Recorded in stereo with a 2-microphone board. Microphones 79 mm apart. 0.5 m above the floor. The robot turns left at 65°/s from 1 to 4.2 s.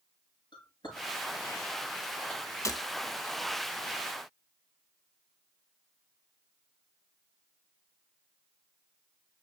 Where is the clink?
70° left (ahead or behind), 6.5 m; by 2.4 s 15° left (ahead or behind), 6.5 m.